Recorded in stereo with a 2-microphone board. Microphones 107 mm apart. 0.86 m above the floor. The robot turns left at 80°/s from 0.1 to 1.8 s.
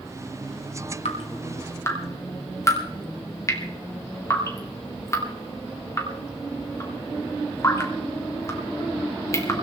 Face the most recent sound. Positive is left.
turn(degrees=30)  # may be behind; listen again after turning